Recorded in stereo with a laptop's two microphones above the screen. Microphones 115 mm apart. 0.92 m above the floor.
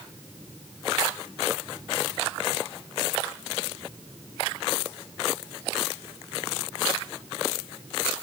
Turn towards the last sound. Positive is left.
No sound to turn to.